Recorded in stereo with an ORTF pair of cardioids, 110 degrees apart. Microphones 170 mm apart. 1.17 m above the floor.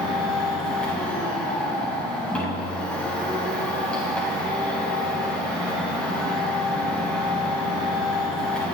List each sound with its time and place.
0.0 s a machine running: 5° left, 7 m